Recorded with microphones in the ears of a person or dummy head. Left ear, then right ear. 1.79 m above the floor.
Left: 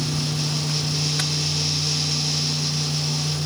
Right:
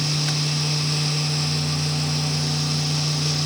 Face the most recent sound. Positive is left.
No sound to turn to.